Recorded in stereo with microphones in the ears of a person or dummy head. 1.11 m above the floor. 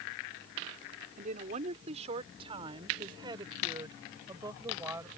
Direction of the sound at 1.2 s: 40° right (ahead or behind).